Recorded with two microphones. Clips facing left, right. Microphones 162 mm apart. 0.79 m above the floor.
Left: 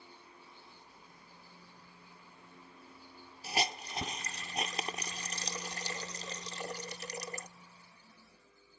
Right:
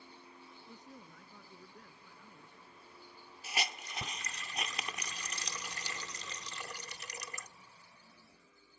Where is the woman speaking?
85° right.